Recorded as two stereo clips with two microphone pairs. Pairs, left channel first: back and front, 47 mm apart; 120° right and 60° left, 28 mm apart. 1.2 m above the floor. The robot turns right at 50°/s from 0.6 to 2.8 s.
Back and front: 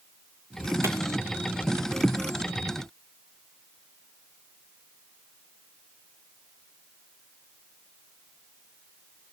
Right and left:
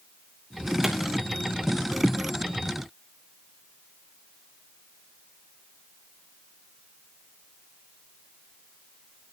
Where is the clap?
15° right, 3 m; by 0.9 s 10° right, 3 m.